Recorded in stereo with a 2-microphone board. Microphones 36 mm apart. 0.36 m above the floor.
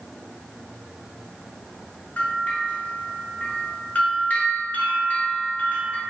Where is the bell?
45° left (ahead or behind), 0.8 m.